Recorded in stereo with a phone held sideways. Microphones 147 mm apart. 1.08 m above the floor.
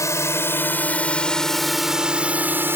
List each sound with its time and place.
0.0 s a drone: 20° left (ahead or behind); by 2.8 s 15° right (ahead or behind)